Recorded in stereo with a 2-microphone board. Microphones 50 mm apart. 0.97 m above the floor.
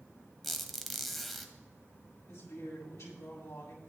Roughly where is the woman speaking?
Left.